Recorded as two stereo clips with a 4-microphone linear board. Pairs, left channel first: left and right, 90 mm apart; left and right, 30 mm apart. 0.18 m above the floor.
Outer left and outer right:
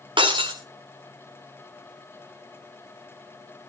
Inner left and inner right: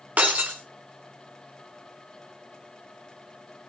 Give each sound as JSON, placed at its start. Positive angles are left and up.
{"t": 0.2, "sound": "breaking glass", "side_deg": -65, "distance_m": 2.0}